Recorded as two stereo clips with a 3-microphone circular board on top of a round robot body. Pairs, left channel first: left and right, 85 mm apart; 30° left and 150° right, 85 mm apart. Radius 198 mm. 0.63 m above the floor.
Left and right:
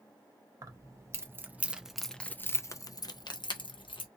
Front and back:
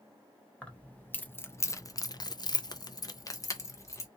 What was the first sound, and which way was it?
Keys jangling, 45° right.